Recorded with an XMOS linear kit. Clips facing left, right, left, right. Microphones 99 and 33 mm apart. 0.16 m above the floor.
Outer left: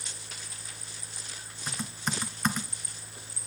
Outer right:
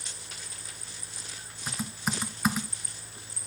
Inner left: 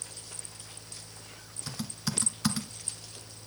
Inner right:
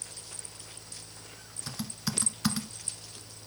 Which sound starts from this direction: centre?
Typing on a keyboard, at 1.7 s.